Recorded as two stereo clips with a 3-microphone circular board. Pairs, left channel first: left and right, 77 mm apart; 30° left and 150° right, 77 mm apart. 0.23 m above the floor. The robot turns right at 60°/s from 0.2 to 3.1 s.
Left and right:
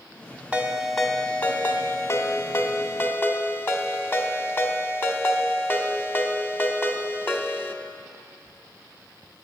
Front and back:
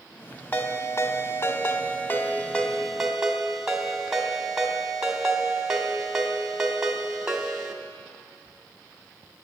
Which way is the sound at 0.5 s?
20° right.